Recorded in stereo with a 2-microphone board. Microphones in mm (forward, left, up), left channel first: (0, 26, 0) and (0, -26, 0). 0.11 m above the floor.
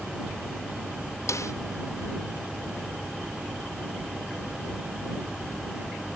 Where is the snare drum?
70° left (ahead or behind).